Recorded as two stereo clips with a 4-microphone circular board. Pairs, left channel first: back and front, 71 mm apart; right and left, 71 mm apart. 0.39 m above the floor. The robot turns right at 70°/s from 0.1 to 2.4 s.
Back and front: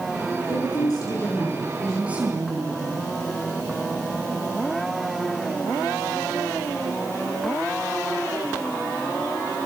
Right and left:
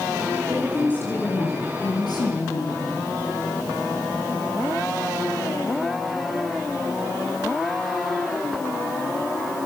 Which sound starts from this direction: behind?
A woman speaking, at 0.5 s.